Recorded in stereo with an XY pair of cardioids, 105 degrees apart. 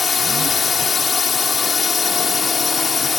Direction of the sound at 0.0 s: 35° left.